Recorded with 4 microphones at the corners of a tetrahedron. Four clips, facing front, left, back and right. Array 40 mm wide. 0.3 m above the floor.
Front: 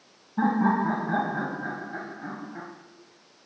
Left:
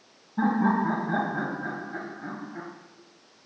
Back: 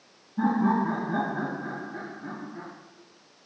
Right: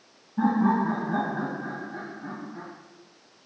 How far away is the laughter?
About 1.4 m.